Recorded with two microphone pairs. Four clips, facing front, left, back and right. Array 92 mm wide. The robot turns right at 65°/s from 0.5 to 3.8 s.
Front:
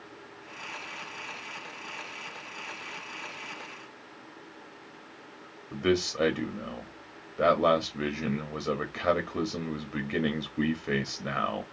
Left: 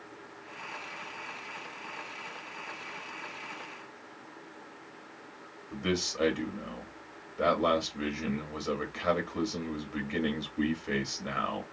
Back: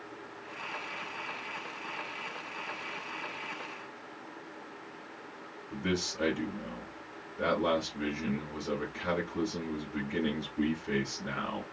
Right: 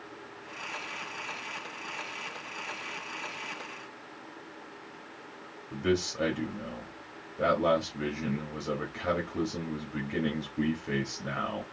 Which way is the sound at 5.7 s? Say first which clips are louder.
Right 3 dB, front 7 dB; 5° left.